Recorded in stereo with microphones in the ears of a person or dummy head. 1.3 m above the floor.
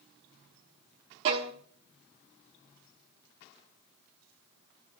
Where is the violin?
25° right (ahead or behind), 0.7 m.